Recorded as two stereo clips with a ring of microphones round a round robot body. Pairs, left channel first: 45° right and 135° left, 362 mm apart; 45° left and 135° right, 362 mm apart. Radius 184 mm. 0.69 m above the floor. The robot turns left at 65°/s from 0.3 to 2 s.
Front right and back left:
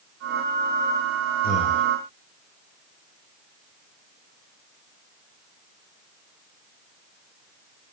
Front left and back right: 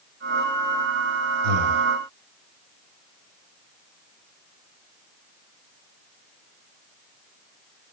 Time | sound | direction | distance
1.4 | breathing | 110° right | 2 m